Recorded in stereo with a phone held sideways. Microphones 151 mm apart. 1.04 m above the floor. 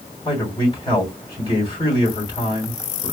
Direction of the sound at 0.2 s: 35° left (ahead or behind).